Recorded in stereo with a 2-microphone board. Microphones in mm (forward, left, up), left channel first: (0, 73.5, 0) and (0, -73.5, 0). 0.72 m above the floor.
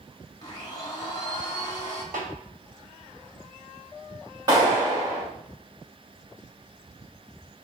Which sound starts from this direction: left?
A blender, at 0.4 s.